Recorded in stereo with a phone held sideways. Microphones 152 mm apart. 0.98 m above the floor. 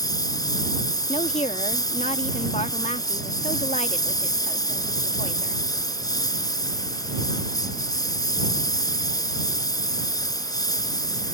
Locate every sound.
0.0 s a lawn mower: 25° left (ahead or behind)
1.1 s a woman speaking: 45° left (ahead or behind)